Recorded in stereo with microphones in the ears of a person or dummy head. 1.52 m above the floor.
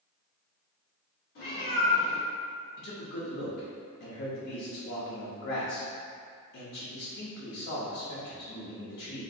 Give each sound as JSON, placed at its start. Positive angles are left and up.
{"t": 1.4, "sound": "a cat meowing", "side_deg": 55, "distance_m": 1.8}
{"t": 2.8, "sound": "a man speaking", "side_deg": 55, "distance_m": 0.8}